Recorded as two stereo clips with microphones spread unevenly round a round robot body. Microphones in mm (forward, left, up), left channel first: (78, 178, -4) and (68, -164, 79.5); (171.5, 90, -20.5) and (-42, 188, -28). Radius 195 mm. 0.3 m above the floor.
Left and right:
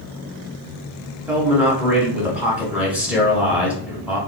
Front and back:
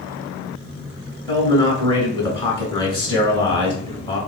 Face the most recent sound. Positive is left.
turn(degrees=20)